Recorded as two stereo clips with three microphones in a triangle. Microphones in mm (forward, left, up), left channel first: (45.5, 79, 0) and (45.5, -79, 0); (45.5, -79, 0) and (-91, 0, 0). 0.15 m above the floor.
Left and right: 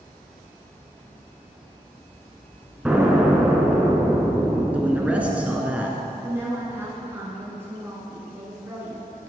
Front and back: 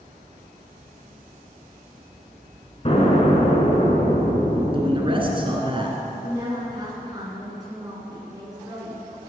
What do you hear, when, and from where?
2.9 s an explosion: 15° right, 1.4 m
4.7 s a man speaking: 170° right, 1.7 m
6.2 s a woman speaking: 155° right, 1.8 m